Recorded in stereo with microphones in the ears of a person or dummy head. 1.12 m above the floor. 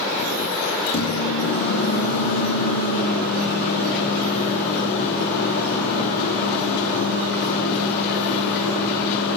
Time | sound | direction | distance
0.9 | a microwave | 60° left (ahead or behind) | 9 m